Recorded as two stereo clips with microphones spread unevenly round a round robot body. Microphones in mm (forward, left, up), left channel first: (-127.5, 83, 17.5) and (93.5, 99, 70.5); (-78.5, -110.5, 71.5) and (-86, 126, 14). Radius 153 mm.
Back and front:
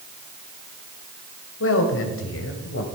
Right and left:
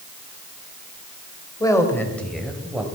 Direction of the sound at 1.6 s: 170° right.